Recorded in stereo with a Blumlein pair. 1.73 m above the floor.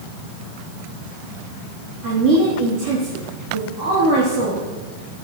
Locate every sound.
2.0 s a woman speaking: 40° right, 3 m